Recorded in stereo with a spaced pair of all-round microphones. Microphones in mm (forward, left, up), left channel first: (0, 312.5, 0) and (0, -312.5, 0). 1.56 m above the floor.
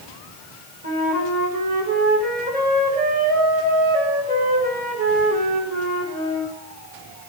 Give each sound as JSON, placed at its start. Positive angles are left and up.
{"t": 0.8, "sound": "a flute", "side_deg": -15, "distance_m": 4.0}